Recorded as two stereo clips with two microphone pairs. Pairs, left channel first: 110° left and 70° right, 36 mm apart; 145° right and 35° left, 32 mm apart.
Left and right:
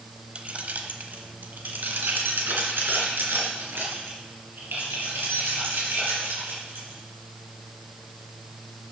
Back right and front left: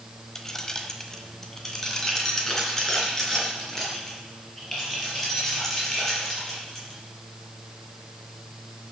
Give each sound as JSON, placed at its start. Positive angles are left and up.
{"t": 0.3, "sound": "keys jangling", "azimuth_deg": -85, "distance_m": 0.8}